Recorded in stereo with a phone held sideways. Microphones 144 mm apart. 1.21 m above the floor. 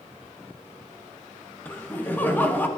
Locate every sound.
1.6 s laughter: 15° left (ahead or behind), 1.1 m